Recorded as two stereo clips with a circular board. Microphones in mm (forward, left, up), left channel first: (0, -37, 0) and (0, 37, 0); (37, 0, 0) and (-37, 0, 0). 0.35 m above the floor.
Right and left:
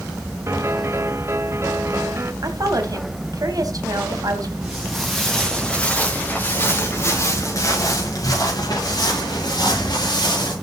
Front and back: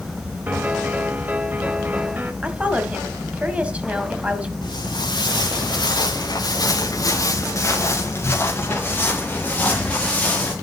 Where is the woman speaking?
110° left, 1.8 m.